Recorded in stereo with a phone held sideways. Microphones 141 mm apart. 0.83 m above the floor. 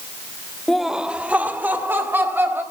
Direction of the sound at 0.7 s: 5° left (ahead or behind).